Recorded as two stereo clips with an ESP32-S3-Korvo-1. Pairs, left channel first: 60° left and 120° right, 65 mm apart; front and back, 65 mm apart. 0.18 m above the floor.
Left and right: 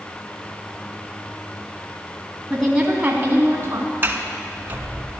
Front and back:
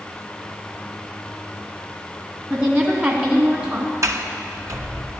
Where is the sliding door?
170° right, 1.1 m.